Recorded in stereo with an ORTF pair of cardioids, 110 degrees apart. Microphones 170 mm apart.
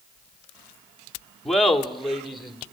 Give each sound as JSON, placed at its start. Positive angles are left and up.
{"t": 1.4, "sound": "laughter", "azimuth_deg": 0, "distance_m": 2.0}